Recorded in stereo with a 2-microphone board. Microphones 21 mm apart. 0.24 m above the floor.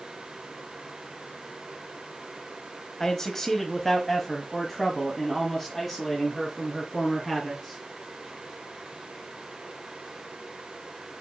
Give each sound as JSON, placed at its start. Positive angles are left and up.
{"t": 3.0, "sound": "a man speaking", "side_deg": 25, "distance_m": 1.2}